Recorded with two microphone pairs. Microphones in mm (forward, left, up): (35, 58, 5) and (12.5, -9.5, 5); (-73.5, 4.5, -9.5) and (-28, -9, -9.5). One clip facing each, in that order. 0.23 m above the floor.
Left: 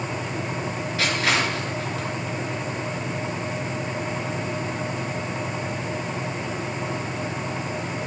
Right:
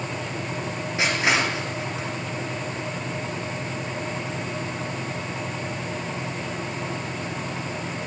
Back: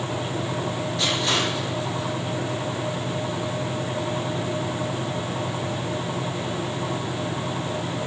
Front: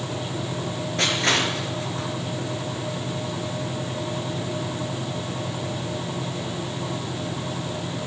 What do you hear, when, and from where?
1.0 s crushing: 40° right, 3.5 m